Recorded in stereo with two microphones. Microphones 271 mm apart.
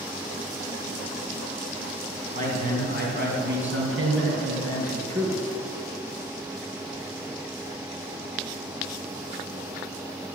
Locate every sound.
2.3 s a man speaking: 30° right (ahead or behind), 2.5 m; by 5.4 s 65° right (ahead or behind), 3 m